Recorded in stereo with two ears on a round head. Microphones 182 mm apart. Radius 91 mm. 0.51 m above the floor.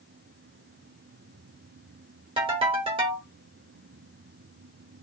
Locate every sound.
2.4 s a ringtone: 25° right (ahead or behind), 1.1 m